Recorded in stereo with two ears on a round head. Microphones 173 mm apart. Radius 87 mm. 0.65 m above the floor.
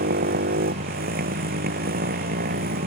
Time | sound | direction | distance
0.0 | a motorcycle | 50° right (ahead or behind) | ?